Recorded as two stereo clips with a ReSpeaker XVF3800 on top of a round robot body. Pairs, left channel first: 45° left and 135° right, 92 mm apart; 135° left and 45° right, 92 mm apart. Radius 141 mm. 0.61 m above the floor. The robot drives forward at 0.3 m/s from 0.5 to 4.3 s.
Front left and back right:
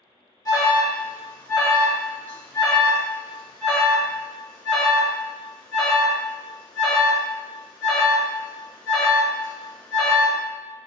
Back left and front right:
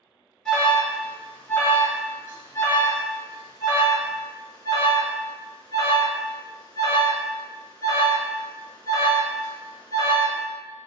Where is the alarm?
60° left, 1.5 m; by 10.4 s 130° left, 1.6 m.